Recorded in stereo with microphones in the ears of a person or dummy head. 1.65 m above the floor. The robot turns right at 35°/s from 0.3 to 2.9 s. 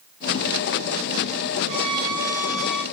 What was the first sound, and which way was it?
A violin, 35° right.